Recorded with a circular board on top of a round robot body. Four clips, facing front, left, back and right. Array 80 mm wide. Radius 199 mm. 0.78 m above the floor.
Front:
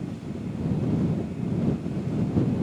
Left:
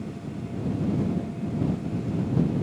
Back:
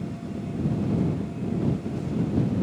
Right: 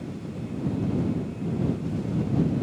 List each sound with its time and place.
Only background noise.